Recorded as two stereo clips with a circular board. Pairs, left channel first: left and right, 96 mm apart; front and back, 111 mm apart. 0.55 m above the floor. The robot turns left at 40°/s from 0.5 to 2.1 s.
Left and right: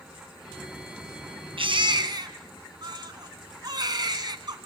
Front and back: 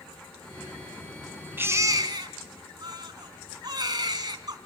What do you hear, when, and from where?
1.6 s a baby crying: 110° right, 2.5 m; by 4.6 s 130° right, 2.5 m